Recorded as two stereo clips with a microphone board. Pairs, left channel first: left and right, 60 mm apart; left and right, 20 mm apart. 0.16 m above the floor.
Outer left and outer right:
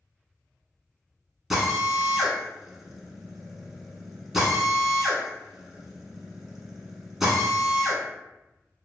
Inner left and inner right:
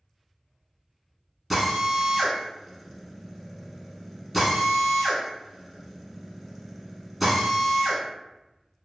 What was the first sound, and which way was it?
A drill, 5° right (ahead or behind).